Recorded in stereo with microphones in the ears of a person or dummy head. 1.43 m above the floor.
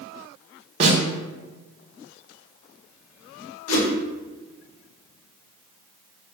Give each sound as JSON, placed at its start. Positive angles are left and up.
{"t": 0.8, "sound": "a snare drum", "side_deg": -40, "distance_m": 1.0}
{"t": 3.7, "sound": "a whoosh", "side_deg": 75, "distance_m": 1.1}